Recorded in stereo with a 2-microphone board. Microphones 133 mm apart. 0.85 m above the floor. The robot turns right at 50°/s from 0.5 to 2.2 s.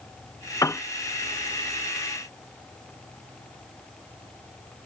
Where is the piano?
25° left (ahead or behind); by 0.8 s 15° left (ahead or behind).